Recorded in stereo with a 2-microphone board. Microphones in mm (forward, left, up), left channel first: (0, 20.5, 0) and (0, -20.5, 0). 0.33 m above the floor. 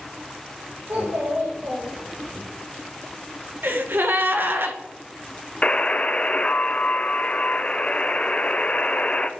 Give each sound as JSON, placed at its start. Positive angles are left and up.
{"t": 0.9, "sound": "a child speaking", "side_deg": -80, "distance_m": 4.0}
{"t": 3.6, "sound": "a gasp", "side_deg": -55, "distance_m": 0.8}
{"t": 5.6, "sound": "a buzzer", "side_deg": 30, "distance_m": 0.6}